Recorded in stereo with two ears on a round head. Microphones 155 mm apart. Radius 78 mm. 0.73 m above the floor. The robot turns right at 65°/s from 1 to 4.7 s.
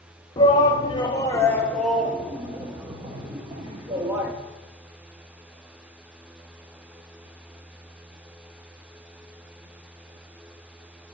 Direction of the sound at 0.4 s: 25° left (ahead or behind).